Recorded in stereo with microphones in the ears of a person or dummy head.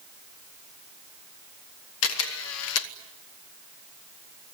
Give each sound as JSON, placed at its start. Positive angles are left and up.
{"t": 2.0, "sound": "a camera shutter", "side_deg": 70, "distance_m": 1.0}